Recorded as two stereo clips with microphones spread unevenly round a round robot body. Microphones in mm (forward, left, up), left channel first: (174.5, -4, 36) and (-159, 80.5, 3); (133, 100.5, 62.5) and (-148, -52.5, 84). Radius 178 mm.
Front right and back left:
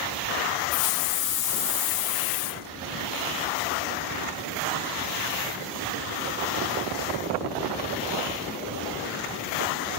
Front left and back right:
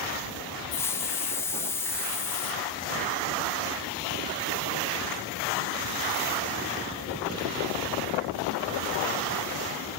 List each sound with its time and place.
0.7 s a hiss: 55° right, 1.6 m